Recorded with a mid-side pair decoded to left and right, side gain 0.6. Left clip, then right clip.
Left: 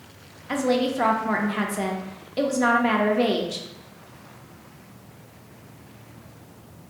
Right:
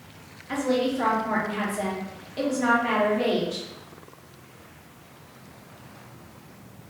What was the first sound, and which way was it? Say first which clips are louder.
A woman speaking: left 2 dB; 30° left.